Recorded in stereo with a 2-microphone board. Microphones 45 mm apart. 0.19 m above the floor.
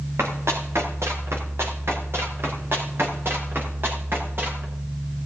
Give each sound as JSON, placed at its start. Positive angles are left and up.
{"t": 0.2, "sound": "running footsteps", "side_deg": -75, "distance_m": 5.0}